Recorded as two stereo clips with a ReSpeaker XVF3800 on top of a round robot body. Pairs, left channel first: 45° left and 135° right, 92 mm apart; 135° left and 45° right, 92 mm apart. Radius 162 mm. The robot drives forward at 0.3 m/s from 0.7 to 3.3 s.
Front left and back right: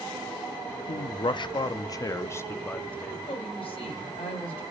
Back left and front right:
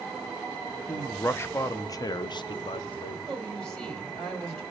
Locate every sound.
0.9 s a man speaking: 60° left, 0.7 m; by 3.2 s 125° left, 0.7 m
3.3 s a woman speaking: 50° left, 2.5 m